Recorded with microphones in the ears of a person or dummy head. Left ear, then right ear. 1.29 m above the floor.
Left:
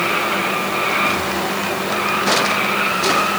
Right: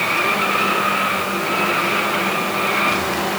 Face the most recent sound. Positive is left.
No sound to turn to.